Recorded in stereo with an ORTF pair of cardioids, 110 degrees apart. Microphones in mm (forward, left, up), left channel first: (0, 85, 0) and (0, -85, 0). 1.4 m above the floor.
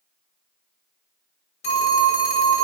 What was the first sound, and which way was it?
A phone ringing, 40° left.